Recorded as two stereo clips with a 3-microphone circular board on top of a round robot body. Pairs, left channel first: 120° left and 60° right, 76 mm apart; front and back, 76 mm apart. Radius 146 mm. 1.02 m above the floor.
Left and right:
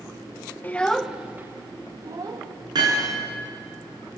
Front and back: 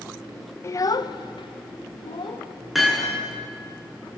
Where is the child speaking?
55° left, 0.9 m; by 2.5 s 20° right, 1.8 m.